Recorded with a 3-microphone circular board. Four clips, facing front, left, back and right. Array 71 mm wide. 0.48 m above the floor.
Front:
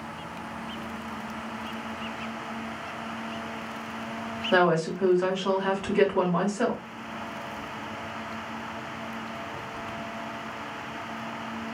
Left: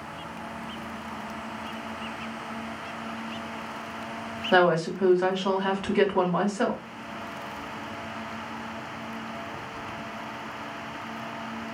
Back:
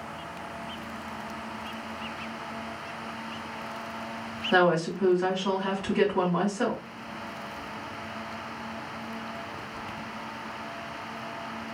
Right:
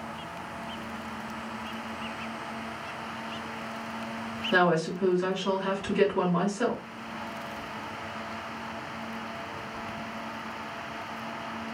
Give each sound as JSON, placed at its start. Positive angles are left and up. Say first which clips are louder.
{"t": 4.5, "sound": "a woman speaking", "louder": "left 3 dB, even", "azimuth_deg": 65, "distance_m": 1.4}